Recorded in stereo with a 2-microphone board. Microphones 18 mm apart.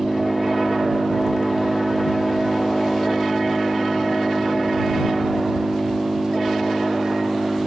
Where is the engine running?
50° right (ahead or behind).